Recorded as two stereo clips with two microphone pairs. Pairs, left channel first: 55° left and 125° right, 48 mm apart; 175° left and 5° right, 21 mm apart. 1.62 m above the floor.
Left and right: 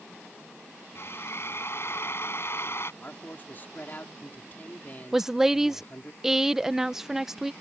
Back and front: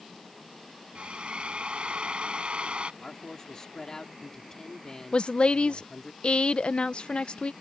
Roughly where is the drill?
Ahead.